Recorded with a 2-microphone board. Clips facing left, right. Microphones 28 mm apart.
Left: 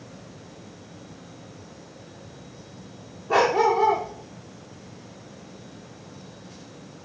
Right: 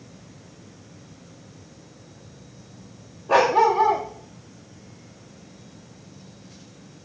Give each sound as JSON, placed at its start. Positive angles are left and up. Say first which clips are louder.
{"t": 3.3, "sound": "a dog barking", "louder": "right 2 dB", "side_deg": -75, "distance_m": 7.5}